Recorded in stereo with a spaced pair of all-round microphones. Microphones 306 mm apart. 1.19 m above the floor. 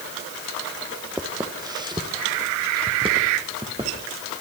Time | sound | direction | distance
1.2 | footsteps | 10° right (ahead or behind) | 2.0 m